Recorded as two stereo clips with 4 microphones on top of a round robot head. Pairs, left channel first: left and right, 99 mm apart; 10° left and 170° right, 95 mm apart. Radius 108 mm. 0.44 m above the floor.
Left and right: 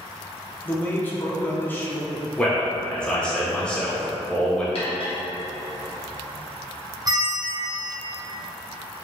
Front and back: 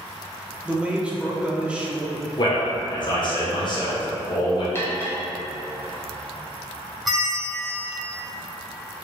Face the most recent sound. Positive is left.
turn(degrees=-80)